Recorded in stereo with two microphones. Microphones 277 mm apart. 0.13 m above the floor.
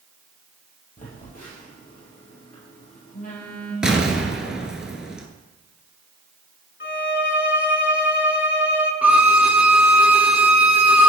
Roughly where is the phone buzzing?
Left.